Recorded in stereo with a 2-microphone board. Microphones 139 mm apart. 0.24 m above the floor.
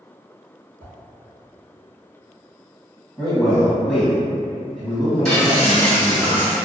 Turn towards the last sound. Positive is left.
turn(degrees=5)  # may be behind; listen again after turning